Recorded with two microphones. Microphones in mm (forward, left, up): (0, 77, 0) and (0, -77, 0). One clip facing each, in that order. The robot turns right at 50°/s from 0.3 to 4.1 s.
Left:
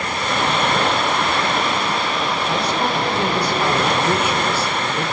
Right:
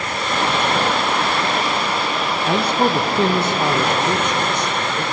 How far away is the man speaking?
About 1.7 m.